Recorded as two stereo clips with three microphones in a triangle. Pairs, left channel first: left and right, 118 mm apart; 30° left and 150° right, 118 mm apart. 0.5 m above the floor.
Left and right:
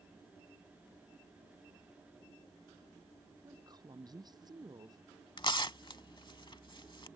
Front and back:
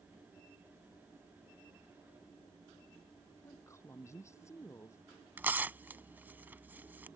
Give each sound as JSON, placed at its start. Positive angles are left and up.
{"t": 3.4, "sound": "a woman speaking", "azimuth_deg": -35}
{"t": 5.4, "sound": "tearing paper", "azimuth_deg": 135}